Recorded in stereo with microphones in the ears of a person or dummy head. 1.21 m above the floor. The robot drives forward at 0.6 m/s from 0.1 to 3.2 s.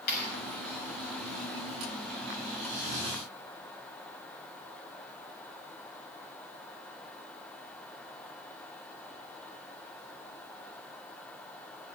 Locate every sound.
0.1 s a clap: 55° left (ahead or behind), 6.5 m